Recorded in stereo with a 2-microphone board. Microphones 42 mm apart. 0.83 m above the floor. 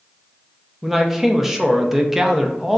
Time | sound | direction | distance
0.8 | a man speaking | 10° right (ahead or behind) | 0.6 m